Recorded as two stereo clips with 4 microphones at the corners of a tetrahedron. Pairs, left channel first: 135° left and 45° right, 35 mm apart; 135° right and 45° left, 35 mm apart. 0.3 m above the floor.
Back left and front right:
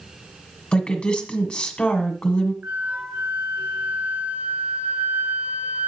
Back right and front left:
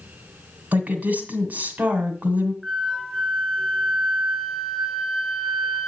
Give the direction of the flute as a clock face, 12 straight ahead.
2 o'clock.